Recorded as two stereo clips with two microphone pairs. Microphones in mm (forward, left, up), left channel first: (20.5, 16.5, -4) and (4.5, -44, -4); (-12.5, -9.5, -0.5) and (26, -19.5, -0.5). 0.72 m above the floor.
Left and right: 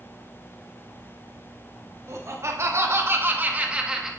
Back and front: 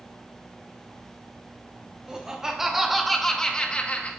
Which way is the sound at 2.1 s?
80° right.